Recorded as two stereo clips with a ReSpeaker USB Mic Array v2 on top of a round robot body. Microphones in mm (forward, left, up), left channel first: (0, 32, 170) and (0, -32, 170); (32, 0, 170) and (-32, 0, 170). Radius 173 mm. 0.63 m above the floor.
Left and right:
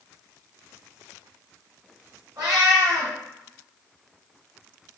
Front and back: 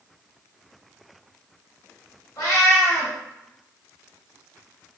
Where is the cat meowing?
50° right, 0.7 m.